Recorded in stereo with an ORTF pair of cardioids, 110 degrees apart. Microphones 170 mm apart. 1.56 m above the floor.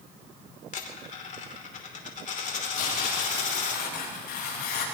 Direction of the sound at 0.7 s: 50° left.